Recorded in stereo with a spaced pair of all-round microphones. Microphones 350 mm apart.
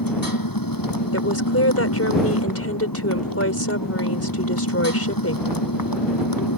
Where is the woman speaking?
45° left (ahead or behind).